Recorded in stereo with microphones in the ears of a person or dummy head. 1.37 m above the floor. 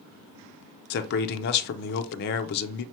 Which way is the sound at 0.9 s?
50° left (ahead or behind).